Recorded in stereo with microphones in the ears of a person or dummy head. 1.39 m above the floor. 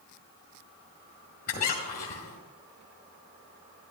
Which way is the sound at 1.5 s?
45° left (ahead or behind).